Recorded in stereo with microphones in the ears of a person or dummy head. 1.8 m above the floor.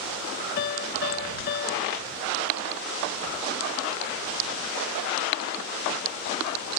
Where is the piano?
55° left (ahead or behind).